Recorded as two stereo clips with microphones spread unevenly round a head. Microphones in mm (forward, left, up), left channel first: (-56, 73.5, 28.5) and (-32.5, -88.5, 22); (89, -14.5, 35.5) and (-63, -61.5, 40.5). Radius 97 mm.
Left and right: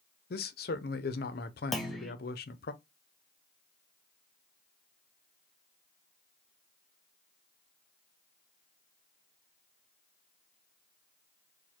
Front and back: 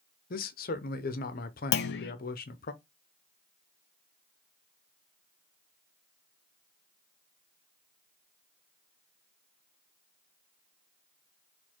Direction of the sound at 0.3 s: 55° left.